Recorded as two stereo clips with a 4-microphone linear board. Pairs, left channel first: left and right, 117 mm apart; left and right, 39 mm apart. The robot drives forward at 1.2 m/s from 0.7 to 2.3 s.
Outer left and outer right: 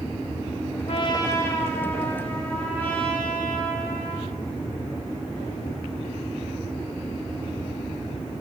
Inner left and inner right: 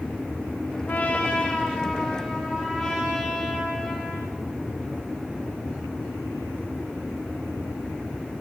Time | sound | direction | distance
0.9 | a trumpet | 60° left (ahead or behind) | 0.6 m